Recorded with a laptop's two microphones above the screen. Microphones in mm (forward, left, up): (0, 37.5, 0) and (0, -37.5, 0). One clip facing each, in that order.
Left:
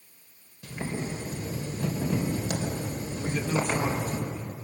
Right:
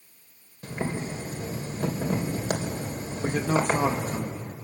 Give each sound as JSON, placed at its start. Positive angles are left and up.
{"t": 0.6, "sound": "boiling", "side_deg": -40, "distance_m": 4.0}
{"t": 3.2, "sound": "a man speaking", "side_deg": -50, "distance_m": 1.8}